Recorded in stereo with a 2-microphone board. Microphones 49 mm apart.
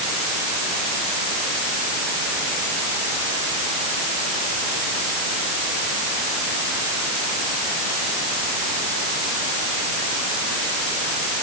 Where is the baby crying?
I don't hear a baby crying.